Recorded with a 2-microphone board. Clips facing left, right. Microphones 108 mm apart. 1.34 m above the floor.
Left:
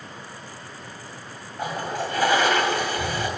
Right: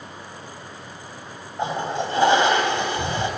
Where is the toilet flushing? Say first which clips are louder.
Right 3 dB; 25° right (ahead or behind), 2.5 m.